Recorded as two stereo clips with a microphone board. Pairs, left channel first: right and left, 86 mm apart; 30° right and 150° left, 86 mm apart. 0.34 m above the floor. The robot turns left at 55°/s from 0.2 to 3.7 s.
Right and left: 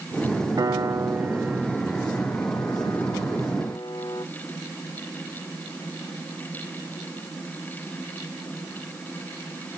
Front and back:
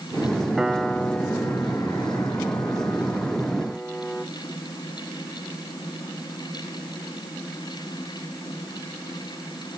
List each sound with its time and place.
0.6 s a piano: 70° left, 0.6 m; by 4.2 s 105° right, 0.6 m